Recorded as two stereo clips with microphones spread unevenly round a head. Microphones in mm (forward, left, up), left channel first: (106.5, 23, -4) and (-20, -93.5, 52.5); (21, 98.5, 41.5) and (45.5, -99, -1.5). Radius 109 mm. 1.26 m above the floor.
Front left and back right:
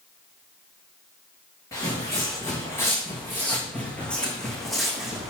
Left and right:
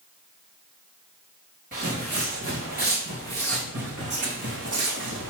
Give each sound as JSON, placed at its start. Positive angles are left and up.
{"t": 1.7, "sound": "footsteps", "azimuth_deg": -35, "distance_m": 4.5}